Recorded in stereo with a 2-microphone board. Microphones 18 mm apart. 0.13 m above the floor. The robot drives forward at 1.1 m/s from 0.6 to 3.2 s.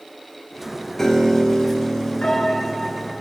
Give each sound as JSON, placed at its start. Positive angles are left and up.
{"t": 1.0, "sound": "a piano", "side_deg": 25, "distance_m": 1.3}